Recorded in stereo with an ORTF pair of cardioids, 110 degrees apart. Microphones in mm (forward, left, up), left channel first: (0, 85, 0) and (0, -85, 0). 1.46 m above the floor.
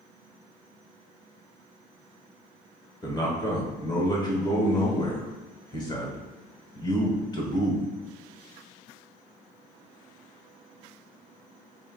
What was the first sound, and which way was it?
A man speaking, 25° left.